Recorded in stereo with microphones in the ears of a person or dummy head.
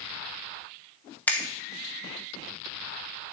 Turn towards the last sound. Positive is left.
turn(degrees=5)  # may be behind; listen again after turning